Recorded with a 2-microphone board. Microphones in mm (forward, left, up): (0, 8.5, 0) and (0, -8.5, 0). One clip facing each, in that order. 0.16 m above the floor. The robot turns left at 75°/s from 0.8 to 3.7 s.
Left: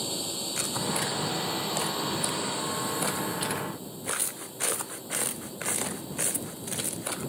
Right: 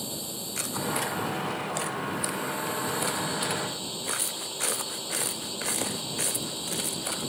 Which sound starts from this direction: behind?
A drone, at 0.0 s.